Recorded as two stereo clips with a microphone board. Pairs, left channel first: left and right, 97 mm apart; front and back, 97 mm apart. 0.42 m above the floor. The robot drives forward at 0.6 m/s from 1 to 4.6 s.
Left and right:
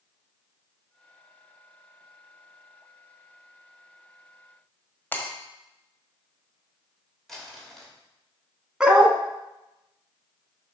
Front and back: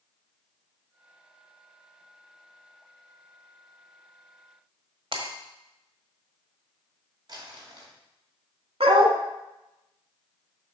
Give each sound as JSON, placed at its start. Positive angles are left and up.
{"t": 5.1, "sound": "breaking glass", "azimuth_deg": 160, "distance_m": 1.3}
{"t": 7.3, "sound": "crumpling", "azimuth_deg": 175, "distance_m": 1.8}
{"t": 8.8, "sound": "a dog barking", "azimuth_deg": -170, "distance_m": 1.0}